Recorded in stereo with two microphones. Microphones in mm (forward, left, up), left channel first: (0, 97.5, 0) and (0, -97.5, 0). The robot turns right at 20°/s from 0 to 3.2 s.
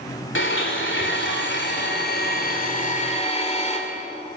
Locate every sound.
0.3 s a blender: 90° left, 2.5 m; by 3.8 s 145° left, 2.5 m